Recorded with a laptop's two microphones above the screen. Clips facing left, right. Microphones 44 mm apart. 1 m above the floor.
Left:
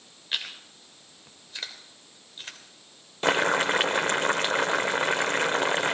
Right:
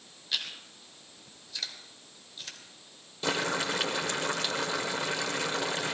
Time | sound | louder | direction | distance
0.3 | chewing | left 2 dB | 35° left (ahead or behind) | 3 m
3.2 | boiling | left 7 dB | 50° left (ahead or behind) | 0.9 m